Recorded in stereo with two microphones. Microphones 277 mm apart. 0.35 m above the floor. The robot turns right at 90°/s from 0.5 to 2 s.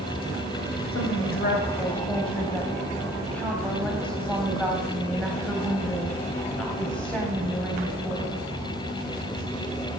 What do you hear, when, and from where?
0.9 s a woman speaking: 80° left, 2.5 m; by 8.4 s 175° left, 2.5 m